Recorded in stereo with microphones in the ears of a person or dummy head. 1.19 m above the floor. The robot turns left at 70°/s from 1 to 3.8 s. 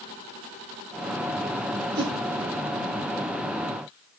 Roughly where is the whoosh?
Right.